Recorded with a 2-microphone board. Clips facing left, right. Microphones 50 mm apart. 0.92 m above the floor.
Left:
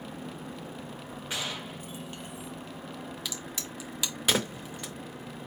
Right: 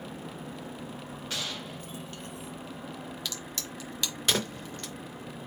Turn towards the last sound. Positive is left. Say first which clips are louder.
# even
turn(degrees=10)  # may be behind; listen again after turning